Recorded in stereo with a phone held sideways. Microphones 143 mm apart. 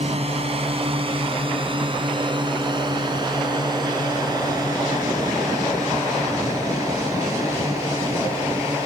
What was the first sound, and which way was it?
A drone, 45° right (ahead or behind).